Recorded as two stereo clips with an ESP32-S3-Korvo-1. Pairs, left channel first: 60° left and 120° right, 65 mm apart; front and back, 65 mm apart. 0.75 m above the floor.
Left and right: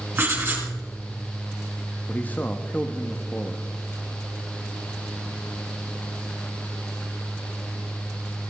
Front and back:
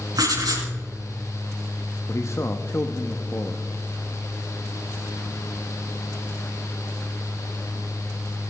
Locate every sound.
0.1 s writing: 175° right, 4.5 m
2.1 s a man speaking: 5° left, 0.9 m